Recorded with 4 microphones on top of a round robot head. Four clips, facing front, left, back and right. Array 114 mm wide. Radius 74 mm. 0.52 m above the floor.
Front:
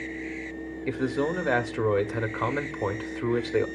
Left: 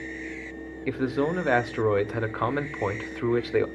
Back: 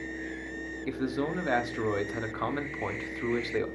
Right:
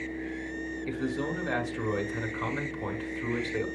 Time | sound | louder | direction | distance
0.9 | a man speaking | left 7 dB, front 4 dB | 70° left | 1.2 m